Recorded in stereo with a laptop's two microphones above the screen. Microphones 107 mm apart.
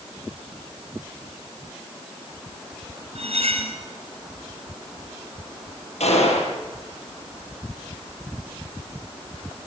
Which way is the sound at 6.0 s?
85° left.